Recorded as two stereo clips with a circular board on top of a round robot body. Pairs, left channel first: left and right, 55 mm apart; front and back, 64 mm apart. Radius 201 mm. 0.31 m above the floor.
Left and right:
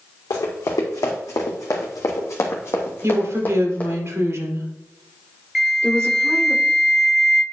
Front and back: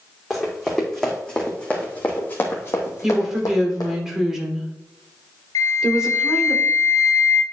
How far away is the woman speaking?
About 2.5 m.